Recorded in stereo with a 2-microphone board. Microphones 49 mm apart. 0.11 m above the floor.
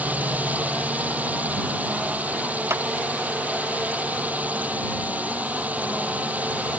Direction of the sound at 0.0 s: 30° right (ahead or behind).